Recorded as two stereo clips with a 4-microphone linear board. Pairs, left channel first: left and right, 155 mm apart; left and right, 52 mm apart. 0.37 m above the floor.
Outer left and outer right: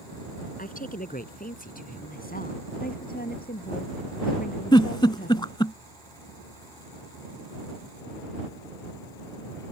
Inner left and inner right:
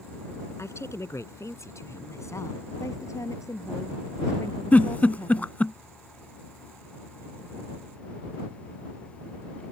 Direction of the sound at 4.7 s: 30° left (ahead or behind).